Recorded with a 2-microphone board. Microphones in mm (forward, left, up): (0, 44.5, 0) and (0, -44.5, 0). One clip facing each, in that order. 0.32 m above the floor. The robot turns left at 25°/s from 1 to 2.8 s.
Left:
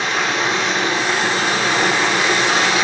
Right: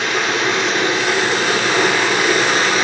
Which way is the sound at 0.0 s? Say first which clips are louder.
Right 1 dB; 90° right.